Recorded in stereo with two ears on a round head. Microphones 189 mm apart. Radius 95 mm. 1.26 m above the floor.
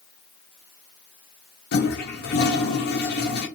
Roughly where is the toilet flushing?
Left.